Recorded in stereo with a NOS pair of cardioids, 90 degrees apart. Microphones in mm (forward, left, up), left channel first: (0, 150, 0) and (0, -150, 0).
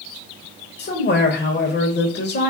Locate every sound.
0.8 s a man speaking: 35° left, 1.1 m